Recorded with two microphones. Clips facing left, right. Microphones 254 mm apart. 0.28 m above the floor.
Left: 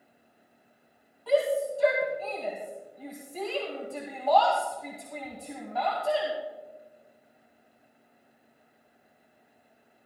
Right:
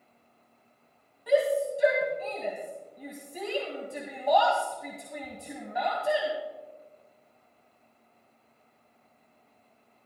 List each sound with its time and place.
1.3 s a shout: 15° right (ahead or behind), 2.5 m